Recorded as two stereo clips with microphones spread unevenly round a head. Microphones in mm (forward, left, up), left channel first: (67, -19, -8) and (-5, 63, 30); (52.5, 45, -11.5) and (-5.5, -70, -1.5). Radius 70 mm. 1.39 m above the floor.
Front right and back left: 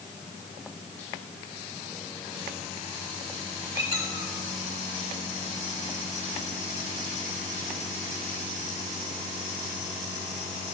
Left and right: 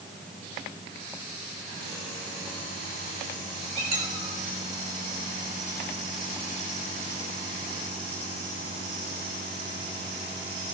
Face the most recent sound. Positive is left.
turn(degrees=-125)